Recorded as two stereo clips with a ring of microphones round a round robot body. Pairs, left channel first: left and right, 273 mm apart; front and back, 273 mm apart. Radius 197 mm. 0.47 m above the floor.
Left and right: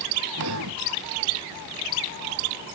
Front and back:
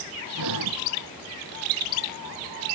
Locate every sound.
0.4 s breathing: 140° right